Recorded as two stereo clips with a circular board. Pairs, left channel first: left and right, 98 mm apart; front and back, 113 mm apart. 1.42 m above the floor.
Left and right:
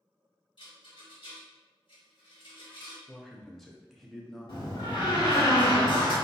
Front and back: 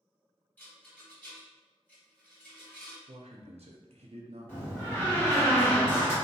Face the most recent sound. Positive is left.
turn(degrees=70)